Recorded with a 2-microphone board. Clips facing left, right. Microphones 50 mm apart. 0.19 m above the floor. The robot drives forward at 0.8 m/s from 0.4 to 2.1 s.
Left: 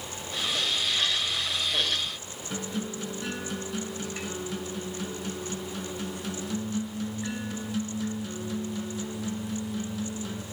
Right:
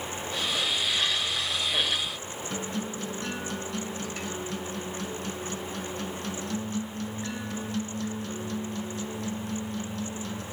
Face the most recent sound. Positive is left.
turn(degrees=10)  # may be behind; listen again after turning